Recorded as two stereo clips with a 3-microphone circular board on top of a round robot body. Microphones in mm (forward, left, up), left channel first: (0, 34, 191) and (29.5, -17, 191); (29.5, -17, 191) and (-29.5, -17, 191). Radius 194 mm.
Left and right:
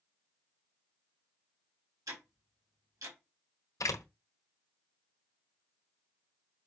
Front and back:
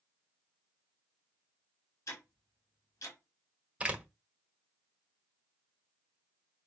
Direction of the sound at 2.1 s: 35° right.